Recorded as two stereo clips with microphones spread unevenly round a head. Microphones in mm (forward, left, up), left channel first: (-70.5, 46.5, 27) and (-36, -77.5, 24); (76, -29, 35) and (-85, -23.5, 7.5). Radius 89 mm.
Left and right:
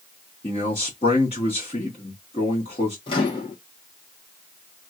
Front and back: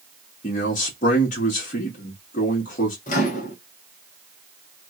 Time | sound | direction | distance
0.4 | a man speaking | 50° left | 1.5 m
3.1 | a microwave | 50° left | 1.1 m